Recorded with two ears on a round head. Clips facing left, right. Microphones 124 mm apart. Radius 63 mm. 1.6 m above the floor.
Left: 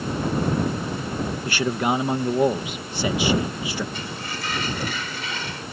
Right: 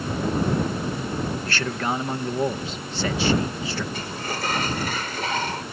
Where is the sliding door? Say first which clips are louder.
Right 2 dB; 40° right (ahead or behind).